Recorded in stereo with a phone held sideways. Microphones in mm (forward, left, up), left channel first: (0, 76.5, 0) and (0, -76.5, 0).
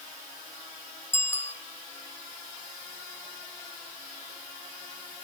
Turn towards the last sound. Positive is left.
turn(degrees=15)  # may be behind; listen again after turning